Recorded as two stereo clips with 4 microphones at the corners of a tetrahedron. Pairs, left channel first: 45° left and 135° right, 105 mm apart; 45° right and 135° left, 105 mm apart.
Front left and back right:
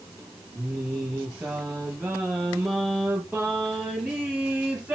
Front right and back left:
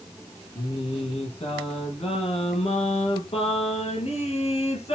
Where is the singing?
55° right, 5.5 m.